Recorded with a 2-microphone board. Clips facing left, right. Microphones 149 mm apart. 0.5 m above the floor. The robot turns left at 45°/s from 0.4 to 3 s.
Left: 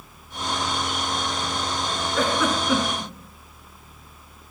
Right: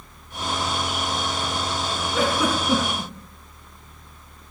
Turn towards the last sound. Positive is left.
turn(degrees=-45)  # may be behind; listen again after turning